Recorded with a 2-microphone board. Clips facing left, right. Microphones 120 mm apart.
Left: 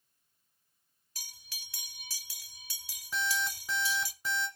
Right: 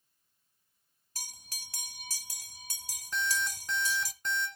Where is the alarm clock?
5° left (ahead or behind), 1.8 m.